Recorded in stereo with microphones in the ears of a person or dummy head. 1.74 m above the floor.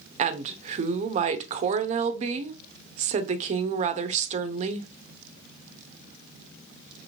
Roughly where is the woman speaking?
Right.